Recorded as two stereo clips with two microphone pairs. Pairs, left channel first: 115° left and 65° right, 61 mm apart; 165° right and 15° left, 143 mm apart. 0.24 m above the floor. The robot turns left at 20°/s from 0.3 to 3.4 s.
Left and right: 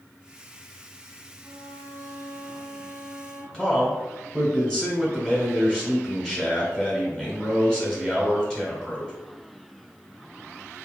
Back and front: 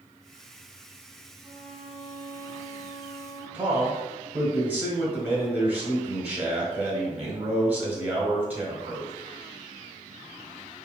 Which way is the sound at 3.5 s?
65° left.